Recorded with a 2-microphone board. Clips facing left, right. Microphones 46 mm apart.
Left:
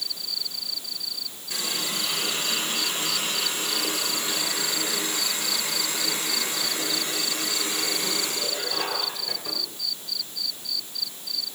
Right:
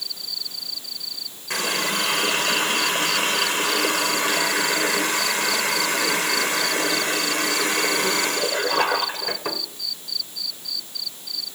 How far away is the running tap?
About 1.6 m.